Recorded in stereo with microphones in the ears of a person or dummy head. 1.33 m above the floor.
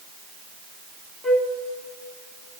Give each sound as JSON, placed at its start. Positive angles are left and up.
{"t": 1.2, "sound": "a flute", "side_deg": 0, "distance_m": 1.1}